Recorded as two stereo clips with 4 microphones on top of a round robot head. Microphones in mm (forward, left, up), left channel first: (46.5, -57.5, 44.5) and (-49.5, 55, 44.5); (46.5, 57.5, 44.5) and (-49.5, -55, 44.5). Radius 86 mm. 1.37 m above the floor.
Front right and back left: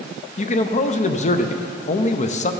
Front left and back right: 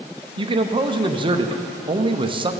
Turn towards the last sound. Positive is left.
turn(degrees=-80)